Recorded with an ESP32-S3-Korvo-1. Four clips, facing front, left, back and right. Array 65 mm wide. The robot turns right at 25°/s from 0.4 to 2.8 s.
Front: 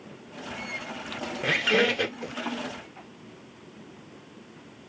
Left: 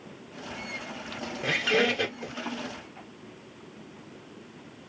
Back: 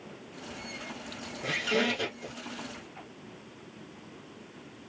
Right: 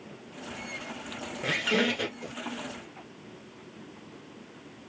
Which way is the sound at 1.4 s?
5° left.